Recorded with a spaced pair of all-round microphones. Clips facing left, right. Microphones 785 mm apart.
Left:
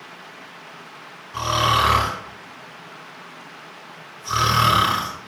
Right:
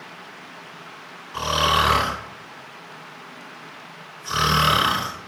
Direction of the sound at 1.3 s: 50° left (ahead or behind).